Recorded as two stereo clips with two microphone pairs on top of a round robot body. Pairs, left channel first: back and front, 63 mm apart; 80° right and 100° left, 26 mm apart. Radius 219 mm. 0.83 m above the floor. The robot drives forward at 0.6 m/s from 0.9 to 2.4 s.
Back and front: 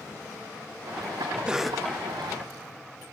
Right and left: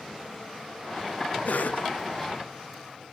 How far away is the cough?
About 0.7 m.